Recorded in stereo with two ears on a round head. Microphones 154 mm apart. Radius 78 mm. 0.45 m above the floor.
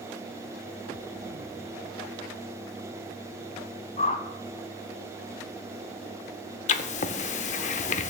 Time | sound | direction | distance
4.0 | a whoosh | 40° left (ahead or behind) | 0.9 m
6.7 | writing | 40° left (ahead or behind) | 0.6 m